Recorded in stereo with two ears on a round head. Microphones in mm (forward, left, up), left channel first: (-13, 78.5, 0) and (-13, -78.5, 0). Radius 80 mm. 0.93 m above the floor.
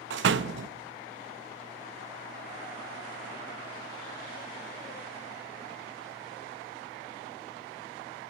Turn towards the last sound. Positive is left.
turn(degrees=-75)  # may be behind; listen again after turning